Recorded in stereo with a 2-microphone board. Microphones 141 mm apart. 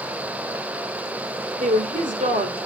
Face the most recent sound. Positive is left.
turn(degrees=-65)  # may be behind; listen again after turning